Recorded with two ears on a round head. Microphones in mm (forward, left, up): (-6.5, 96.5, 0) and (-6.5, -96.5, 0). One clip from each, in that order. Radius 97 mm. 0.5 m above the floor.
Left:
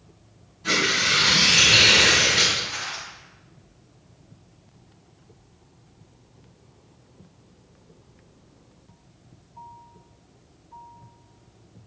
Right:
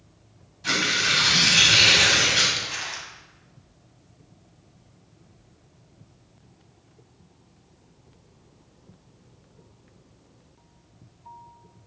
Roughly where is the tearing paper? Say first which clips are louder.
Left 1 dB; right.